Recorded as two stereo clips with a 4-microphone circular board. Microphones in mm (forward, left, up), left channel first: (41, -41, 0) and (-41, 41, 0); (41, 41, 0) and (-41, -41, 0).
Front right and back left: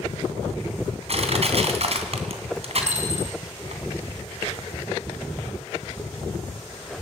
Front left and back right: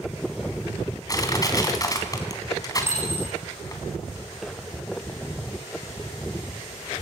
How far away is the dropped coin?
About 6.5 m.